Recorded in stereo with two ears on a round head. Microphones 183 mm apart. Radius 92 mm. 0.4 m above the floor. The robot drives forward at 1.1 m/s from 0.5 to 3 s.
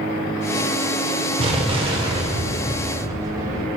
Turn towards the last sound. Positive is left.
turn(degrees=-15)  # may be behind; listen again after turning